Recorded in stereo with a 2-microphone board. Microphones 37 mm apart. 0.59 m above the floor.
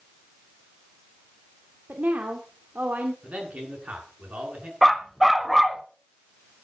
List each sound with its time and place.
1.9 s a woman speaking: 55° right (ahead or behind), 1.8 m
3.2 s a man speaking: 45° right (ahead or behind), 8 m
4.8 s a dog barking: centre (ahead or behind), 1.2 m